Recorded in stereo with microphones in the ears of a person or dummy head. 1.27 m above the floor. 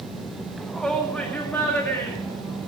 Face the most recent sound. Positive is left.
turn(degrees=15)  # may be behind; listen again after turning